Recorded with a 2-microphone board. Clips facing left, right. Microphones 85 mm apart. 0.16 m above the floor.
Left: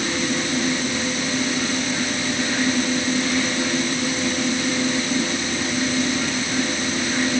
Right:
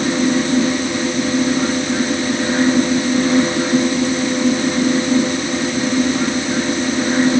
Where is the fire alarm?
I don't hear a fire alarm.